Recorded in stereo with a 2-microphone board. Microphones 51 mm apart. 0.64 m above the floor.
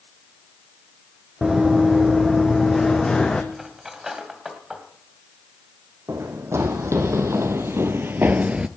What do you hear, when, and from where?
1.4 s running footsteps: 10° right (ahead or behind), 1.6 m; by 3.4 s 15° left (ahead or behind), 2 m
3.5 s cutlery clinking: 10° right (ahead or behind), 2 m
6.1 s running footsteps: 75° right (ahead or behind), 2 m; by 8.7 s 15° right (ahead or behind), 0.7 m